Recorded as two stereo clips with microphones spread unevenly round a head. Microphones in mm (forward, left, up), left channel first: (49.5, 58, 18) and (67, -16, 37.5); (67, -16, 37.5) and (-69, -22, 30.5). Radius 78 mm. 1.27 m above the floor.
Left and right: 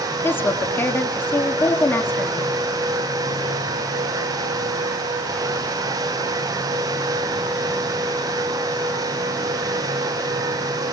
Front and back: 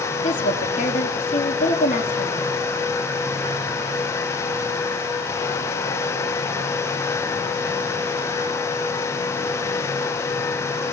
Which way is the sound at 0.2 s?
45° left.